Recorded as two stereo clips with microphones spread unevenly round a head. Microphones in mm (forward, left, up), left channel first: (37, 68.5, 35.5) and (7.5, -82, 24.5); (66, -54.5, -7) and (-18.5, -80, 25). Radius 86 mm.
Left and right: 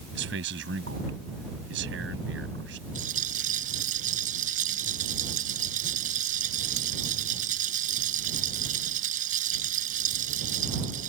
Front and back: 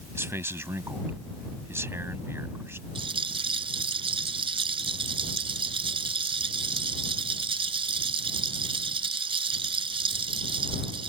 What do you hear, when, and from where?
0.1 s a man speaking: 105° right
3.0 s a rattle: 150° right